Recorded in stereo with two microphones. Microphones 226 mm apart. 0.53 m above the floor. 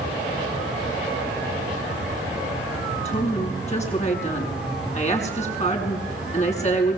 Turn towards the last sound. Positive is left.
turn(degrees=30)  # may be behind; listen again after turning